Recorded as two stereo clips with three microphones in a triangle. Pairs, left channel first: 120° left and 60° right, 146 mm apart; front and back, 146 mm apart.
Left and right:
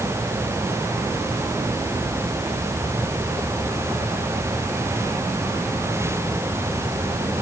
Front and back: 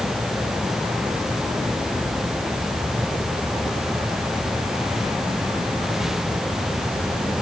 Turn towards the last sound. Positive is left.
No sound to turn to.